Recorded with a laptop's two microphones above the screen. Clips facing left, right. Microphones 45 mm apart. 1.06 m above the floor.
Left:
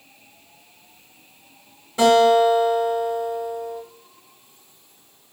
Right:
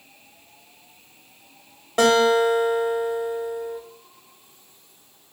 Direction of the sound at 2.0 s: 65° right (ahead or behind).